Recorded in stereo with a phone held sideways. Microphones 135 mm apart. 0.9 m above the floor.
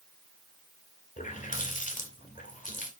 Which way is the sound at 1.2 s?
70° left (ahead or behind).